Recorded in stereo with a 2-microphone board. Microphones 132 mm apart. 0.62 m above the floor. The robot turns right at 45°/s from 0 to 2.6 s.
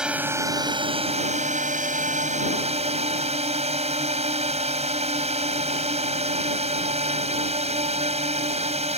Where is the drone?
175° right; by 9.0 s 55° right.